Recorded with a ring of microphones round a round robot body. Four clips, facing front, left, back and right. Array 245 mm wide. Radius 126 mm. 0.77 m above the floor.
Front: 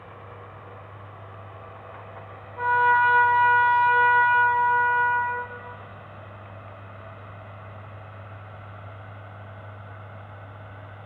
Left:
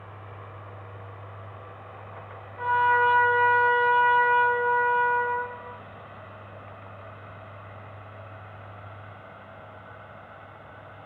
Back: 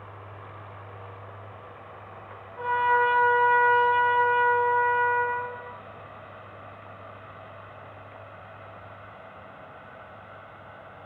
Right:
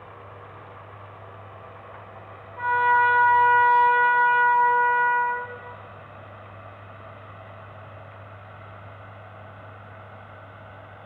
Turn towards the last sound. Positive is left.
turn(degrees=-45)